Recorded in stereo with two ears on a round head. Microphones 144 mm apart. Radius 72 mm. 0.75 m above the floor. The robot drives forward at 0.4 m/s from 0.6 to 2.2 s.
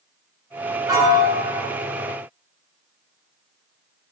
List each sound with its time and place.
0.9 s a piano: 25° right (ahead or behind), 1.8 m; by 1.7 s 20° right (ahead or behind), 2 m